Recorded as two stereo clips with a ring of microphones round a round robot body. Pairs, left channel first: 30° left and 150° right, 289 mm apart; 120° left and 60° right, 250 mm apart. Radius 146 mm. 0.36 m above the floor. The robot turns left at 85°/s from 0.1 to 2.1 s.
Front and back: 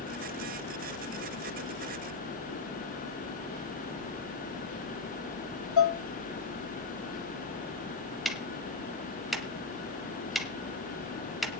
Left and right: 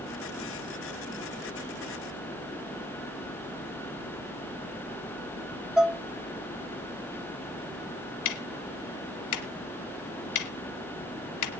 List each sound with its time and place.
5.8 s dishes clattering: 25° left, 0.9 m
8.2 s ticking: 120° left, 1.2 m